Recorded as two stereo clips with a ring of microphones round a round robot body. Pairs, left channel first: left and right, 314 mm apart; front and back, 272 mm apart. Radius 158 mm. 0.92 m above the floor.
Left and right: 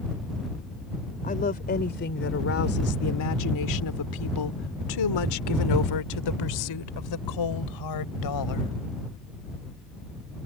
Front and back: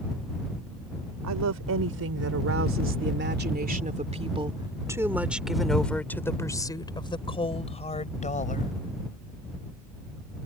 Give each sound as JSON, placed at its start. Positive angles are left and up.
{"t": 1.2, "sound": "a woman speaking", "azimuth_deg": 155}